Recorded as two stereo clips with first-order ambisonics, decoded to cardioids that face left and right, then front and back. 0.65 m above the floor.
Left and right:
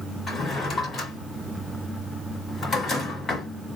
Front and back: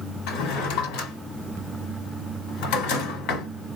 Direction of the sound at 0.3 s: 15° left.